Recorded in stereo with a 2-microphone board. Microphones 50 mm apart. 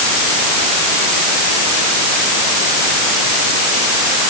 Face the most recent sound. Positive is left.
No sound to turn to.